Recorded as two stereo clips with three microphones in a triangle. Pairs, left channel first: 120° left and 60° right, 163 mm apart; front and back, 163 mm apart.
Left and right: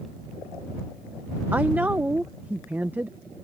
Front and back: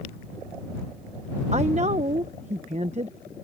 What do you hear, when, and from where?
1.5 s a woman speaking: 140° right